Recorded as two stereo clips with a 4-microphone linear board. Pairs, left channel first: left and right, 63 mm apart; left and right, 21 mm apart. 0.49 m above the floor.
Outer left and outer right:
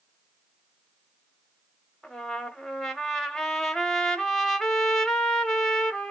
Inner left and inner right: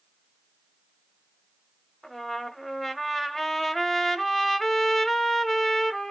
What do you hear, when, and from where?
2.0 s a trumpet: 5° left (ahead or behind), 1.0 m